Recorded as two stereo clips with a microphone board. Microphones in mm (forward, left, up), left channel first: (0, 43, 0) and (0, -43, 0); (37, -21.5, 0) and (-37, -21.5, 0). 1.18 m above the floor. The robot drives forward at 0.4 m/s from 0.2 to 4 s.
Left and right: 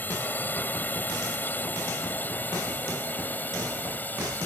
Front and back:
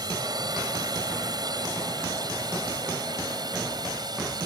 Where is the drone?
155° left; by 4.5 s 160° left.